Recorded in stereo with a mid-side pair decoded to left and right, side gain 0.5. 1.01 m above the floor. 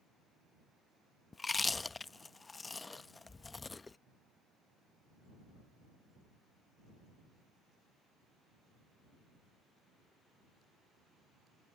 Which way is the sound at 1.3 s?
25° left.